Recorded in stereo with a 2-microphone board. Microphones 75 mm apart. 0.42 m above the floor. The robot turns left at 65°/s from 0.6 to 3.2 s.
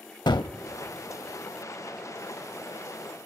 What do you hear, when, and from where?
0.3 s a gunshot: 80° left, 0.5 m